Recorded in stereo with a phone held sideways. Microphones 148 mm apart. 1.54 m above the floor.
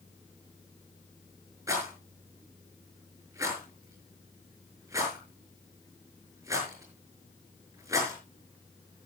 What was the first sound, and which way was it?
A rattle, 20° right (ahead or behind).